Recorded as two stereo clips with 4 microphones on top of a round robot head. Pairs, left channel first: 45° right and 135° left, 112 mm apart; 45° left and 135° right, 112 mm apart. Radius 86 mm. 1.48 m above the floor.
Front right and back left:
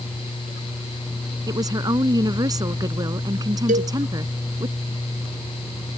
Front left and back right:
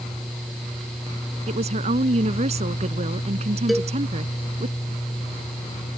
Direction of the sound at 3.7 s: 135° left.